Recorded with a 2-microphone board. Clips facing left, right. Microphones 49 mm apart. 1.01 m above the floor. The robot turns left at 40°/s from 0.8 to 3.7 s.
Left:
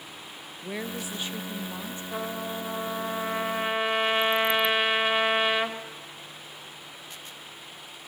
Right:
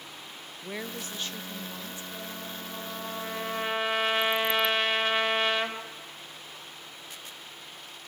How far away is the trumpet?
About 1.9 m.